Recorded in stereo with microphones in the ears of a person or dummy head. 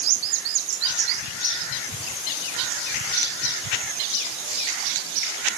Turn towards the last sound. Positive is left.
No sound to turn to.